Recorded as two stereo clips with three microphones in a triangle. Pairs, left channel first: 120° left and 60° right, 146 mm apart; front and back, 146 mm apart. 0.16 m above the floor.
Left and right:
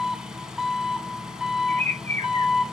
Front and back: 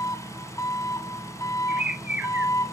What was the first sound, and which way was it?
An engine running, 20° left.